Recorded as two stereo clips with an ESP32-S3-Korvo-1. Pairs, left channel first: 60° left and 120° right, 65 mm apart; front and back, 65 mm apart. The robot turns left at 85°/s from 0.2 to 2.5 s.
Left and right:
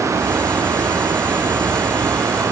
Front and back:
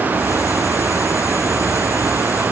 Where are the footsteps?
No footsteps in this recording.